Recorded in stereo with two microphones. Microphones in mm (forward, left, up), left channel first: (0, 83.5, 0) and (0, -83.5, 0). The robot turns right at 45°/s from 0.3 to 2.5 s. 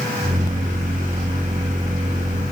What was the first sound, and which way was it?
Only background noise.